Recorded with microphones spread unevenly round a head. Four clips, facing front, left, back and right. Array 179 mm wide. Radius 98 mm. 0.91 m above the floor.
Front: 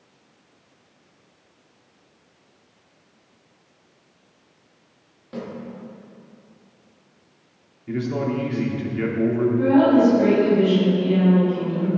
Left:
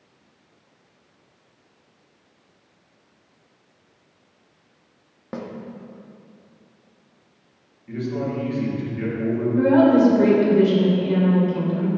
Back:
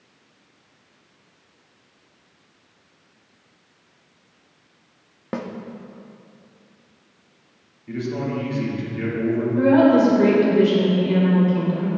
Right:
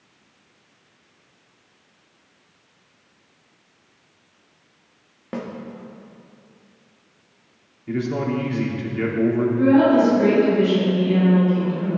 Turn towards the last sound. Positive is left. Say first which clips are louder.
# left 1 dB, back 2 dB
turn(degrees=140)